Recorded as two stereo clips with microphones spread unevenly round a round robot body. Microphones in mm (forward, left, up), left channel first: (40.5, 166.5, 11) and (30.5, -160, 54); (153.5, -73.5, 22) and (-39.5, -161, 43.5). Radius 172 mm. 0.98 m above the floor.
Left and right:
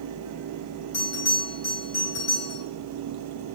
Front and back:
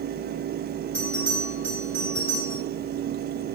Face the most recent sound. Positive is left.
turn(degrees=110)